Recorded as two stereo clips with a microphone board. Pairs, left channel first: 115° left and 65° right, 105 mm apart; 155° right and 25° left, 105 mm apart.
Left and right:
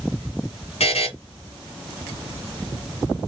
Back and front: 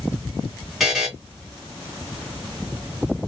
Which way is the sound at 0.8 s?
110° left.